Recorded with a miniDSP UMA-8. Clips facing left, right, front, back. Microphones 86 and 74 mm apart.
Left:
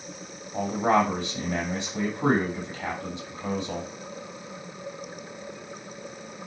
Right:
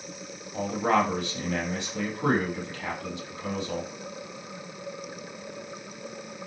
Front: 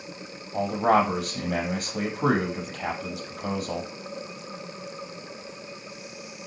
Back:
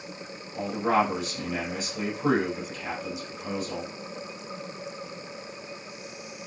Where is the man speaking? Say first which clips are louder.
Left 2 dB, front 3 dB; 20° left, 5 m.